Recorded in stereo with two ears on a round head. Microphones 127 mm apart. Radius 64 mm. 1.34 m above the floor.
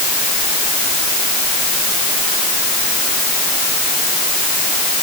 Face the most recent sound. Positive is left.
No sound to turn to.